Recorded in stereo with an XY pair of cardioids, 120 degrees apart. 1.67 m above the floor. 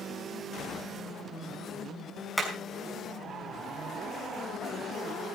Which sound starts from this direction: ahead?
Hammering, at 2.4 s.